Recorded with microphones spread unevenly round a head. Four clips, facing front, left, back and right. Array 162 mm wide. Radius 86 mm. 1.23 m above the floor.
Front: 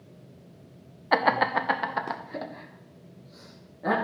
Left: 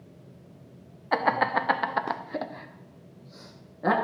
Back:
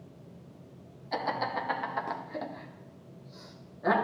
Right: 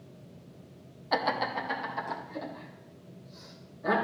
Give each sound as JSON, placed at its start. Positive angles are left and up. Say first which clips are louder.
{"t": 1.1, "sound": "laughter", "louder": "left 5 dB, front 9 dB", "azimuth_deg": 5, "distance_m": 0.6}